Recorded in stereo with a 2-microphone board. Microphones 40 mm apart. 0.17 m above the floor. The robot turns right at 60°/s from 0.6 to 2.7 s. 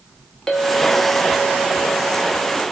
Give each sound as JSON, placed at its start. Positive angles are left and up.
{"t": 0.5, "sound": "a clink", "azimuth_deg": 25, "distance_m": 1.1}